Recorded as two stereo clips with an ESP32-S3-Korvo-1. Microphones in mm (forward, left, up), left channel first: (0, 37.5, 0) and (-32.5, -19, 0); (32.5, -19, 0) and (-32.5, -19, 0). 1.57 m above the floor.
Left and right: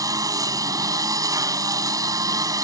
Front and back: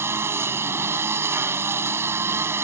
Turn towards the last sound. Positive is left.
turn(degrees=-135)